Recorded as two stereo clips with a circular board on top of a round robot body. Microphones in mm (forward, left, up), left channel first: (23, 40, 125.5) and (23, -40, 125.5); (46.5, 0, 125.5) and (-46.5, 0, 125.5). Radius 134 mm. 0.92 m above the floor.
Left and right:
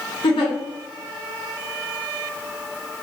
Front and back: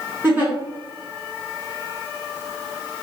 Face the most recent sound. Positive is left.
turn(degrees=110)